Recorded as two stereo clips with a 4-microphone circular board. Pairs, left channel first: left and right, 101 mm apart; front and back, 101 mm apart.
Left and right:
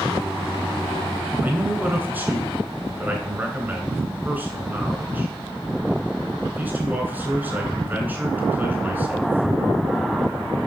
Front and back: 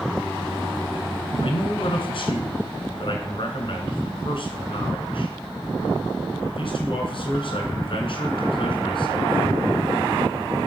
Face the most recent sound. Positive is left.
turn(degrees=-20)